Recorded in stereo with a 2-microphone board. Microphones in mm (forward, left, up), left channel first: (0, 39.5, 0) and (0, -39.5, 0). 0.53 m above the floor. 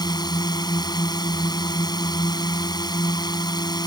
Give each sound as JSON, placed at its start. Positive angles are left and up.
{"t": 0.0, "sound": "a drone", "side_deg": 65}